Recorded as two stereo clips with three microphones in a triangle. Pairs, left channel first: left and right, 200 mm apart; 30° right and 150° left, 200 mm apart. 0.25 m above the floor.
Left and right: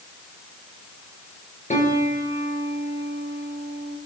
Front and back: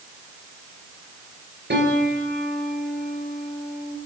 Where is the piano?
140° left, 4.5 m.